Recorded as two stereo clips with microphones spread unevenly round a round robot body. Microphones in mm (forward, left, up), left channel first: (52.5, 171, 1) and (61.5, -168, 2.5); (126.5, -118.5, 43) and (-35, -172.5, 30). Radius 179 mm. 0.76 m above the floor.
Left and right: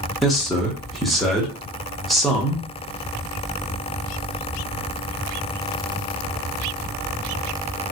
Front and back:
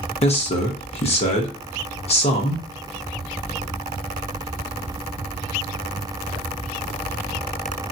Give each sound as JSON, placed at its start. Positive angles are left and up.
{"t": 0.2, "sound": "a man speaking", "azimuth_deg": 0, "distance_m": 0.8}